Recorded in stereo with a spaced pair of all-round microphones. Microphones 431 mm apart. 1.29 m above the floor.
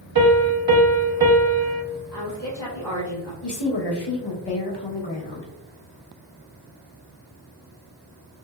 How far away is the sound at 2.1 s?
About 1.8 m.